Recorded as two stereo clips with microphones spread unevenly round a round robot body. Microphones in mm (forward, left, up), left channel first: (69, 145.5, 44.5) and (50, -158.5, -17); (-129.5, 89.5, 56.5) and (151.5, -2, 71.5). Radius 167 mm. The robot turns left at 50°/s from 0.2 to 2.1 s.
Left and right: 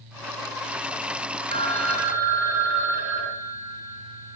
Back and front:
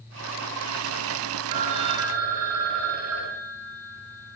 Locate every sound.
1.5 s a phone ringing: 30° right, 3 m; by 4.4 s 60° right, 3 m